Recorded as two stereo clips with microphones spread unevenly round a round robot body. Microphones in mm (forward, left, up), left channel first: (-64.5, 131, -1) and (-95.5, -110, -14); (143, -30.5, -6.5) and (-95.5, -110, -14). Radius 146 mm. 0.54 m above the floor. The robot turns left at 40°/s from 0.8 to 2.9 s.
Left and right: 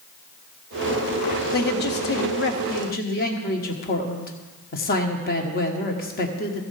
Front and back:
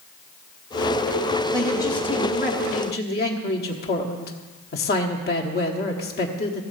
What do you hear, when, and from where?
1.5 s a man speaking: 105° left, 1.1 m; by 6.6 s 50° left, 1.1 m